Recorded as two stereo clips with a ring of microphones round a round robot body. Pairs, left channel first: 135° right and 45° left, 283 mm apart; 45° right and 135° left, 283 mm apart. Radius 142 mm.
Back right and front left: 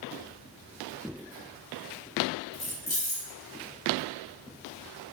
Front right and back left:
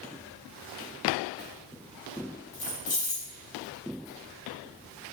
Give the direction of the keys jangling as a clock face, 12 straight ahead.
2 o'clock.